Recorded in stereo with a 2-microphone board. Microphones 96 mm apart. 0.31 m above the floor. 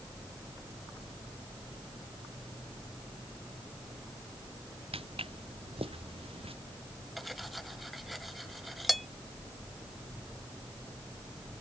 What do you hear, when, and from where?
4.9 s footsteps: 80° right; by 6.5 s 75° right (ahead or behind)
7.2 s cutlery clinking: centre (ahead or behind)